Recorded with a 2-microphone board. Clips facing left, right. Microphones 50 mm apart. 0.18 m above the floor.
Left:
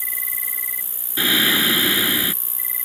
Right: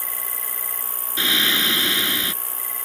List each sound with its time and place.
0.0 s an insect: 30° left (ahead or behind)
1.2 s singing: 10° left (ahead or behind)